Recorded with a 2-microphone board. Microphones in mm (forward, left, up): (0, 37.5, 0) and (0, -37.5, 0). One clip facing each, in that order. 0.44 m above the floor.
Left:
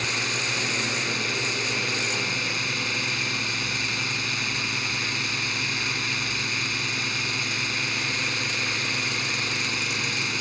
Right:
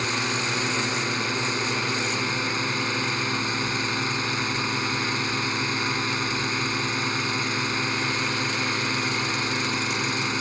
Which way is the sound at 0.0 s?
35° right (ahead or behind).